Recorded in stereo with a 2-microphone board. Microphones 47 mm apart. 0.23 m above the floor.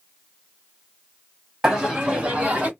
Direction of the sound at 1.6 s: 10° right (ahead or behind).